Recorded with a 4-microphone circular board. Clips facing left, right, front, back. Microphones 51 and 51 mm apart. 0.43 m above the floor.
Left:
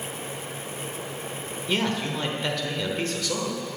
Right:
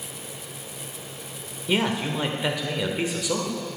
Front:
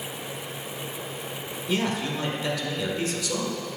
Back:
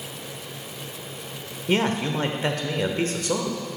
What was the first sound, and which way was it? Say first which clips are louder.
A man speaking: right 2 dB, back 4 dB; 165° right.